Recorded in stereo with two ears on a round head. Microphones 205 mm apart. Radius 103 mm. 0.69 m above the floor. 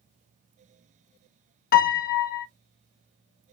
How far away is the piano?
About 0.6 m.